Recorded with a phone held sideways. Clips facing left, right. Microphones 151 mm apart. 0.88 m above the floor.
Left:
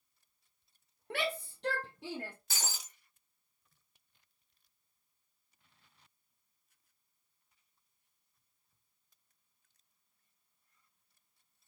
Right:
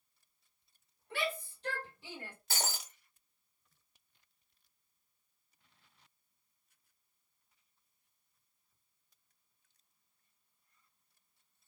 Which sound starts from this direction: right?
Breaking glass, at 2.5 s.